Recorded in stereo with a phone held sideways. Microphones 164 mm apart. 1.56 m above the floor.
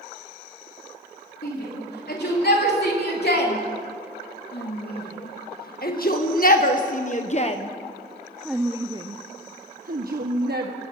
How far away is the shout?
About 4.5 m.